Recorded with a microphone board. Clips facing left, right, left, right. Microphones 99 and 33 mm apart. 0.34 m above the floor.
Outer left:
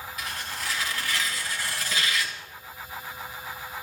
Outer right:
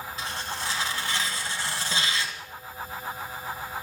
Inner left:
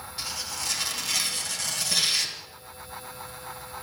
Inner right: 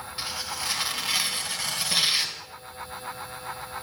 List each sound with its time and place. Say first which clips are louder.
0.2 s tearing paper: outer right 2 dB, inner right 2 dB; 30° right (ahead or behind), 2 m